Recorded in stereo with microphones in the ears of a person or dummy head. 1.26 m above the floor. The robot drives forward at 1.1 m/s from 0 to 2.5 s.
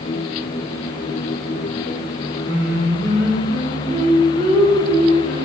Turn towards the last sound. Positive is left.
turn(degrees=-25)  # may be behind; listen again after turning